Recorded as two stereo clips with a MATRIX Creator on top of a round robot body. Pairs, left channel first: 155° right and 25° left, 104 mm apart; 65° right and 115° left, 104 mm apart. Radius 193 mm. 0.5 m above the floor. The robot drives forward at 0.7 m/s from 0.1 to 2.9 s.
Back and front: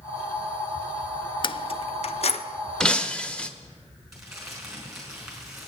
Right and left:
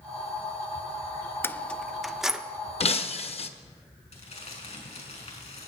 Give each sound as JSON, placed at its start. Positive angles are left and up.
{"t": 1.4, "sound": "keys jangling", "azimuth_deg": -130, "distance_m": 0.6}
{"t": 2.8, "sound": "breaking glass", "azimuth_deg": -75, "distance_m": 1.0}
{"t": 4.1, "sound": "crumpling", "azimuth_deg": -65, "distance_m": 5.0}